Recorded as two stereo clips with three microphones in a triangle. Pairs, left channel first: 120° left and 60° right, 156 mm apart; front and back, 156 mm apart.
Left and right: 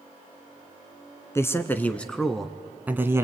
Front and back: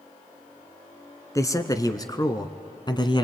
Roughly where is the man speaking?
Ahead left.